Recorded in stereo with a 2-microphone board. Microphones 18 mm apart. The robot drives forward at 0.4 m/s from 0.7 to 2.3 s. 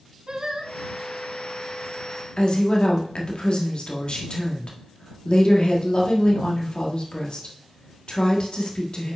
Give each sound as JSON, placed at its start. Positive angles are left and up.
{"t": 0.3, "sound": "singing", "side_deg": -40, "distance_m": 1.3}
{"t": 2.4, "sound": "a woman speaking", "side_deg": 50, "distance_m": 1.6}